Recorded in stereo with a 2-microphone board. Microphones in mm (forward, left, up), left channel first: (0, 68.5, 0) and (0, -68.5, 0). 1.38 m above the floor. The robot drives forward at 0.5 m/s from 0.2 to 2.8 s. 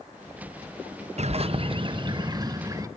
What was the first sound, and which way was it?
A bird, 55° right (ahead or behind).